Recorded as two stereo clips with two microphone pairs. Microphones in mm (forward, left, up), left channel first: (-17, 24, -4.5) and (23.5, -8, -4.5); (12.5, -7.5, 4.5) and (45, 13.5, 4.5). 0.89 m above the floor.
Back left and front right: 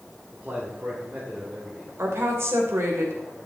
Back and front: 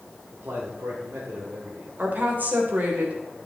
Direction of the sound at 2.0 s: 5° right.